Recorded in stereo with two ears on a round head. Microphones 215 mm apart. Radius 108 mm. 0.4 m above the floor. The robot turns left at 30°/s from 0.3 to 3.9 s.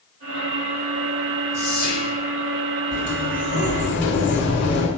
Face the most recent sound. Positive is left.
turn(degrees=50)  # may be behind; listen again after turning